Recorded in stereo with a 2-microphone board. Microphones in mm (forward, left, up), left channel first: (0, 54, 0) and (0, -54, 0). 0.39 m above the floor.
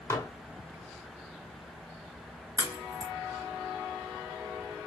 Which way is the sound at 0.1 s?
25° left (ahead or behind).